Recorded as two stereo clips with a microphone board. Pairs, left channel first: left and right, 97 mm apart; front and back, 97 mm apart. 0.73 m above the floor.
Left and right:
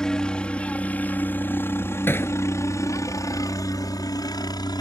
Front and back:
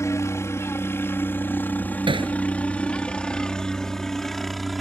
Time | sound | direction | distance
0.0 | a helicopter | 15° left | ?
2.1 | hammering | 155° left | ?